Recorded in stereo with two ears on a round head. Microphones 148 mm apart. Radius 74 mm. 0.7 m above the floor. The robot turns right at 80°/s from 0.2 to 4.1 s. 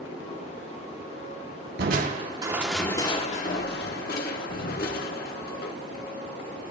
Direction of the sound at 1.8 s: 60° right (ahead or behind).